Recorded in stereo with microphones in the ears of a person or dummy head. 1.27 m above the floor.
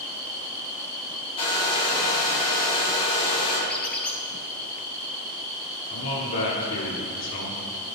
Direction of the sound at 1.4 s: 30° left (ahead or behind).